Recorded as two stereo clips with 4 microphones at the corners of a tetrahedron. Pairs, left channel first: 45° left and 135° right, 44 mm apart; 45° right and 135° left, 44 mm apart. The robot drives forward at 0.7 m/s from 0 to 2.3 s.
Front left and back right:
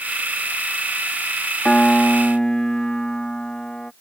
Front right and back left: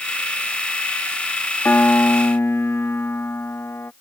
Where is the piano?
20° right; by 3.9 s 30° right.